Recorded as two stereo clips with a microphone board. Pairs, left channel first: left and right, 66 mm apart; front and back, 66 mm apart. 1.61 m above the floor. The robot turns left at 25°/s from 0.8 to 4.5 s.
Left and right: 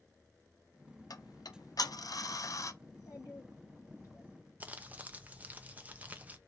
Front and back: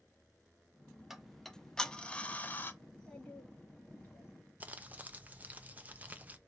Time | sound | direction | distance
1.1 | ticking | 95° left | 0.6 m
2.8 | a child speaking | 80° left | 2.5 m
4.6 | crumpling | 135° right | 0.5 m